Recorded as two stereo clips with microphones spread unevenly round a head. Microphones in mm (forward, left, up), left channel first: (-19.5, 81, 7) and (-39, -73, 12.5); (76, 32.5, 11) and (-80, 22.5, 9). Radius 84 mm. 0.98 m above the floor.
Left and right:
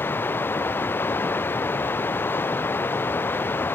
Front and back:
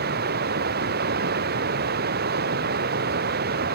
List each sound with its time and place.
0.0 s running water: 160° left